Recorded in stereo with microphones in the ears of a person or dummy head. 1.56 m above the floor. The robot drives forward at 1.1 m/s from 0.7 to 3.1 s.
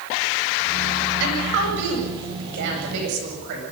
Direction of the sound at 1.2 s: 75° right (ahead or behind).